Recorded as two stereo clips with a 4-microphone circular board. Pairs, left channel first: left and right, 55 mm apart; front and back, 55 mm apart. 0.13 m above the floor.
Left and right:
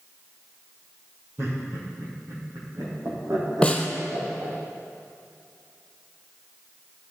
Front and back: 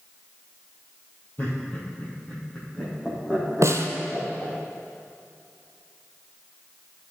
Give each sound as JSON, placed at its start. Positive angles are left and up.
{"t": 1.4, "sound": "laughter", "azimuth_deg": -55, "distance_m": 4.0}
{"t": 3.6, "sound": "a snare drum", "azimuth_deg": 160, "distance_m": 1.2}